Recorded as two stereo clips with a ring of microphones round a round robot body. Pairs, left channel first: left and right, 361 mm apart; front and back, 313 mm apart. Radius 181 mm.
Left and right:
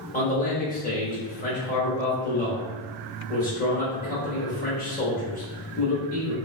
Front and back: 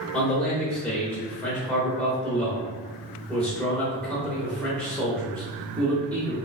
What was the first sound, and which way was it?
A man speaking, 80° left.